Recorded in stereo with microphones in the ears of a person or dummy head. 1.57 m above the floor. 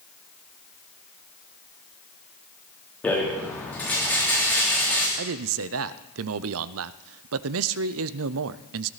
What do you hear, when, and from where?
3.0 s a rattle: 5° left (ahead or behind), 3 m
5.2 s a man speaking: 75° right (ahead or behind), 0.5 m